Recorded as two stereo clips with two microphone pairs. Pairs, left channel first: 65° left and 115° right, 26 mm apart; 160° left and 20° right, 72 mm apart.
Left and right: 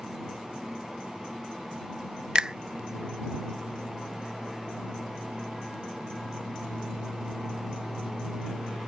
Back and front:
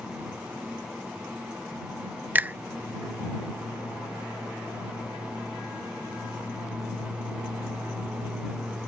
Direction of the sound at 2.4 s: 70° right.